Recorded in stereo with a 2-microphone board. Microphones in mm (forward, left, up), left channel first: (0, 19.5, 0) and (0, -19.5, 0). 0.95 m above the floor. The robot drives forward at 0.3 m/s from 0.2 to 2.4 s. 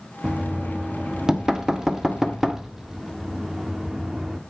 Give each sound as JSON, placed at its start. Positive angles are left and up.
{"t": 0.2, "sound": "knocking", "side_deg": -25, "distance_m": 0.9}